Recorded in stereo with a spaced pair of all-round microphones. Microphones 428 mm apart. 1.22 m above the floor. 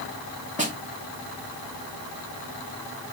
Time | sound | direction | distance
0.6 | a snare drum | 15° right (ahead or behind) | 3 m